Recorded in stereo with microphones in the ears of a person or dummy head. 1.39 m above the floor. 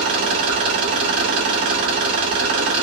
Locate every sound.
0.0 s an engine running: 25° right (ahead or behind), 0.8 m